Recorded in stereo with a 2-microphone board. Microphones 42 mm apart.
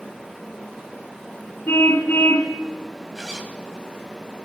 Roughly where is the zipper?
Centre.